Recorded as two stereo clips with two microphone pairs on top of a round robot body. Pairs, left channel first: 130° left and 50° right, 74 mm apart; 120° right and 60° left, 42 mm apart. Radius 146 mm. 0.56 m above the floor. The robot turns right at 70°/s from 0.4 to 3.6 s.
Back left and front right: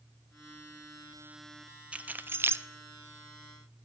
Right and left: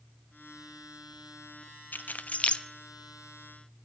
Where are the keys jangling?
105° right, 0.7 m; by 2.6 s 55° right, 0.7 m.